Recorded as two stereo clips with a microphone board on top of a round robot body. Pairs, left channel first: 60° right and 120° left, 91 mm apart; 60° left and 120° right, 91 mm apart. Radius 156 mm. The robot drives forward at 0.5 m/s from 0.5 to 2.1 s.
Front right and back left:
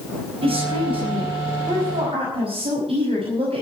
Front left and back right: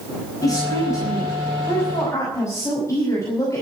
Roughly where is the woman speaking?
Behind left.